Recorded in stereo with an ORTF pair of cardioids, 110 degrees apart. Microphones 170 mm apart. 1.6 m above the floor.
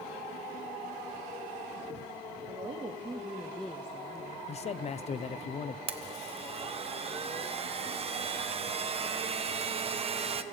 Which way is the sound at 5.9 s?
35° right.